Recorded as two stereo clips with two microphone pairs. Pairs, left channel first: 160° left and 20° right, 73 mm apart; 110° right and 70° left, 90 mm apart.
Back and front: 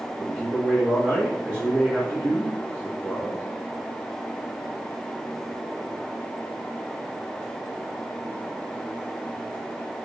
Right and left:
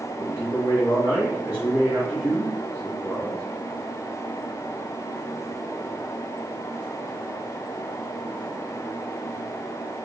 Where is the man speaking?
5° left, 1.5 m.